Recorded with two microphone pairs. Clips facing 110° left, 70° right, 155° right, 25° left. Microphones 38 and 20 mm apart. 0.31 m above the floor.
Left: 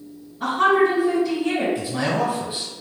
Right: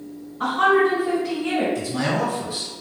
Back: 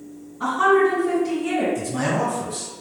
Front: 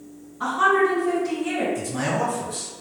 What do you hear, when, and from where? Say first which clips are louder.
0.4 s a woman speaking: even, back 2 dB; 55° right, 1.9 m
1.8 s a man speaking: even, back 2 dB; 125° left, 1.3 m